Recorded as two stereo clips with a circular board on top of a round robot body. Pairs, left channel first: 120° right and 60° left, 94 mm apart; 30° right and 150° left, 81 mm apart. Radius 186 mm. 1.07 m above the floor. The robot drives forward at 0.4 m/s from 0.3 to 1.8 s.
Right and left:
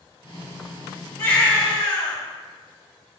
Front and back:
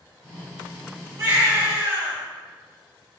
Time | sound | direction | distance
1.2 | a baby crying | 155° right | 2.5 m